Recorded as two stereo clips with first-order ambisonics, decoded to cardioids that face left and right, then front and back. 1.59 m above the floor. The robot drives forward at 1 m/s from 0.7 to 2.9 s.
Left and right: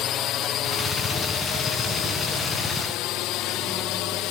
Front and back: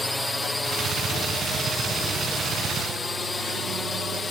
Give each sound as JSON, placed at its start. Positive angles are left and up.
{"t": 0.0, "sound": "a drone", "azimuth_deg": 85}